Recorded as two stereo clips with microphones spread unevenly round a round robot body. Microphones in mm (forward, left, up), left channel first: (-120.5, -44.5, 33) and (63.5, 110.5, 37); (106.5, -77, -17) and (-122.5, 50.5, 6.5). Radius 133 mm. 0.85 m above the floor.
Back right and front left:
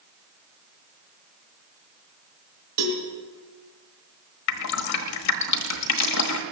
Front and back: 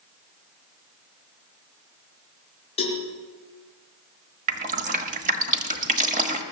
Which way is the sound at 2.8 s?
40° left.